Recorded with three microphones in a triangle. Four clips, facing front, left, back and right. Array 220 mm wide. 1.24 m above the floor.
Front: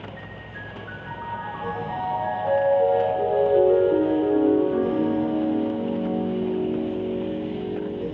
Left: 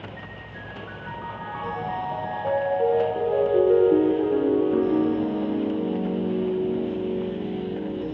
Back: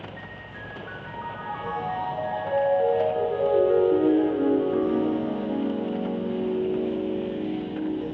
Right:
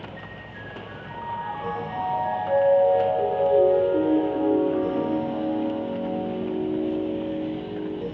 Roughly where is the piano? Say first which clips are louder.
Even, front 1 dB; left.